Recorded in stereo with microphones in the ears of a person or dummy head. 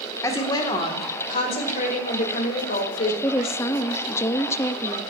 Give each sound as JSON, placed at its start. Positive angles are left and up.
{"t": 0.2, "sound": "a woman speaking", "side_deg": 20, "distance_m": 1.5}
{"t": 3.2, "sound": "a woman speaking", "side_deg": 15, "distance_m": 0.5}